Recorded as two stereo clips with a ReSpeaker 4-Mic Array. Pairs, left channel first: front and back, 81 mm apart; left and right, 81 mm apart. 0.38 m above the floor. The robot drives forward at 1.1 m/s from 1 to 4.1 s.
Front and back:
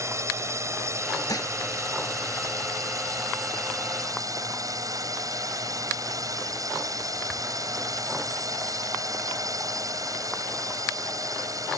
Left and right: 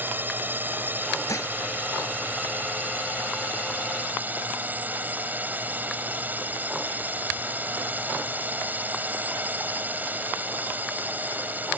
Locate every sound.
0.0 s a drone: 145° right; by 11.8 s 150° right
1.3 s dishes clattering: 45° left